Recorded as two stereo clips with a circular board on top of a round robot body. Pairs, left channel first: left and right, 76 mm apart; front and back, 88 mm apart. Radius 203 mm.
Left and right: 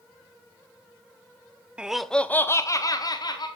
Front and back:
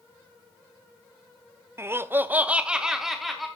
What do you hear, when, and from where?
1.8 s laughter: 155° right, 0.9 m; by 3.5 s 90° left, 1.5 m